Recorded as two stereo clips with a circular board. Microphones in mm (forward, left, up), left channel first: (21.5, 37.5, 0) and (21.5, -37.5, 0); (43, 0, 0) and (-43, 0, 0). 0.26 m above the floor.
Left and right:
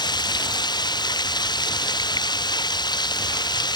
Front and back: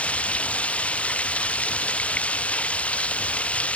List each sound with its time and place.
0.0 s running water: 75° left